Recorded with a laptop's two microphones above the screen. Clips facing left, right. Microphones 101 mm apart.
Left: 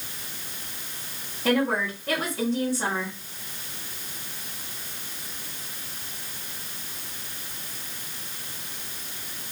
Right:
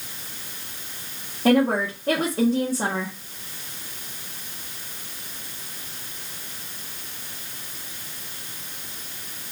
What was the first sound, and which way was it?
A woman speaking, 40° right (ahead or behind).